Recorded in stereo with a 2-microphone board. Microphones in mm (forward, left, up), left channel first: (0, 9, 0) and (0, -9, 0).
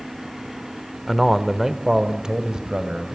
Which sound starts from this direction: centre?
A man speaking, at 1.1 s.